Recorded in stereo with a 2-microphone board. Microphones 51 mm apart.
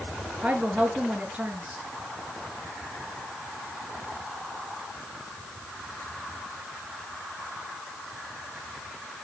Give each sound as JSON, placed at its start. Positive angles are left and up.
{"t": 0.4, "sound": "a woman speaking", "side_deg": -25, "distance_m": 5.5}